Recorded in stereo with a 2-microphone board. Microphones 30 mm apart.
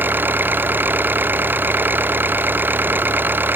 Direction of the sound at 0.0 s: 90° right.